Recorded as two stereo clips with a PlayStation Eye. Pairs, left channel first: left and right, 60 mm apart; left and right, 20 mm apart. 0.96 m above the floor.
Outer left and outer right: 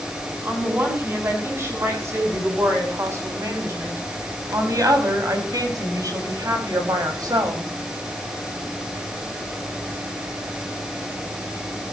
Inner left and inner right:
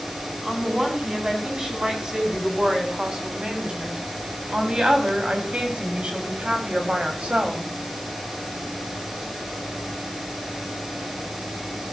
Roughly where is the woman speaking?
Right.